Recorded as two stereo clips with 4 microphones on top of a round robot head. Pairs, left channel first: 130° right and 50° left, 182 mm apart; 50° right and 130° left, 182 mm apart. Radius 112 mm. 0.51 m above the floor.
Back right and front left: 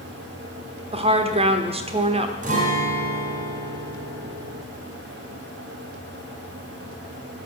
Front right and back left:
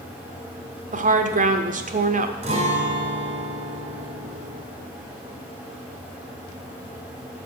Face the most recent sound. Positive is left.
turn(degrees=85)